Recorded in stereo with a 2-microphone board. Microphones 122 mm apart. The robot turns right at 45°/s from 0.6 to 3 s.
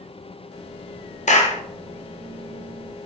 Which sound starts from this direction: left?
A clap, at 1.3 s.